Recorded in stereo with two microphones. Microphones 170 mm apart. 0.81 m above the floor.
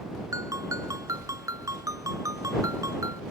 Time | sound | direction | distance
0.3 | a ringtone | 20° right (ahead or behind) | ?